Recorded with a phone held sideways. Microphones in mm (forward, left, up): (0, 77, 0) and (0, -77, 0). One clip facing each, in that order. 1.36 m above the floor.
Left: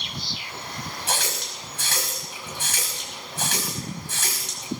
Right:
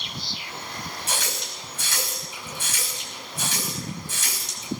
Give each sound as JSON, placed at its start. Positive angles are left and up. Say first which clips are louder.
{"t": 1.1, "sound": "a running tap", "louder": "left 4 dB", "side_deg": 70, "distance_m": 5.5}